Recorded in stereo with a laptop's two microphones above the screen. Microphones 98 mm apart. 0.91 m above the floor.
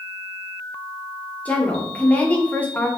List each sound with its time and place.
1.4 s a woman speaking: 15° left (ahead or behind), 0.9 m